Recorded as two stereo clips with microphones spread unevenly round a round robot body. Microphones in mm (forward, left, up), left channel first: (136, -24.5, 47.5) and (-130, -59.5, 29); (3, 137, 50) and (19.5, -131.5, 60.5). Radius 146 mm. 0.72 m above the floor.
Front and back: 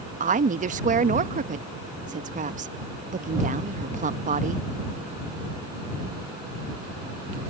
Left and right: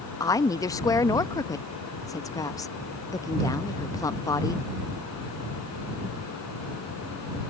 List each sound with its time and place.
0.2 s a woman speaking: 160° left